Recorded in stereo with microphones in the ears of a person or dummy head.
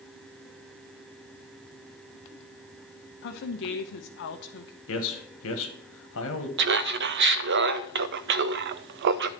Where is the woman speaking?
65° left (ahead or behind), 0.7 m.